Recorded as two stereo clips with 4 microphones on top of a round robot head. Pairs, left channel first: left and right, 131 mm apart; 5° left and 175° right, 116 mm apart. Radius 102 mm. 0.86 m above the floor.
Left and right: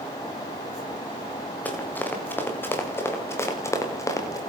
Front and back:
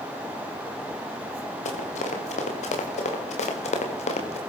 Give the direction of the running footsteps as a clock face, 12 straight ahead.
12 o'clock.